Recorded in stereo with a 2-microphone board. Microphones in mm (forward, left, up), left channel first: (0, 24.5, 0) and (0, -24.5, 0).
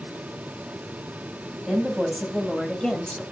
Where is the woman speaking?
Centre (ahead or behind), 3 m; by 3.2 s 15° left (ahead or behind), 2.0 m.